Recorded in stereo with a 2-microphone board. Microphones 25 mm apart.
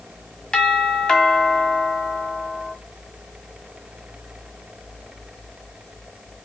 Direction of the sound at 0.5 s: 25° left (ahead or behind).